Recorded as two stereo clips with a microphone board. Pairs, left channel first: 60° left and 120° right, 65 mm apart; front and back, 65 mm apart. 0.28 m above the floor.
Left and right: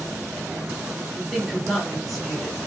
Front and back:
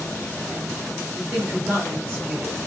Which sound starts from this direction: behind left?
A woman speaking, at 1.2 s.